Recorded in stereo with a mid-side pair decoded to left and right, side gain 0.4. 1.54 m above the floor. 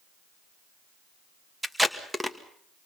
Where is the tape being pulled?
10° right, 2 m.